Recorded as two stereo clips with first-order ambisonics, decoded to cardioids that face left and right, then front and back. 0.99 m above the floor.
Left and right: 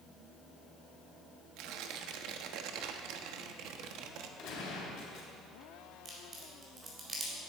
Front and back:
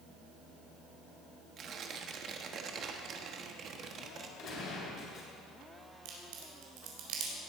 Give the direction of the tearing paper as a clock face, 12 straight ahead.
4 o'clock.